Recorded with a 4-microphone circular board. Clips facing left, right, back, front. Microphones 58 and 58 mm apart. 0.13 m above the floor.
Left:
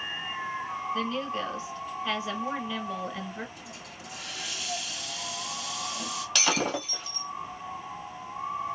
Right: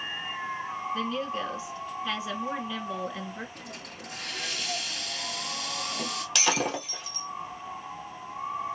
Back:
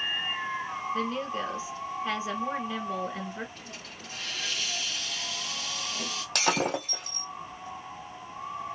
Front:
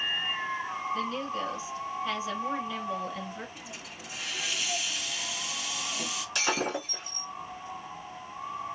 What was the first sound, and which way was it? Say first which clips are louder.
A woman speaking: even, back 3 dB; 170° right.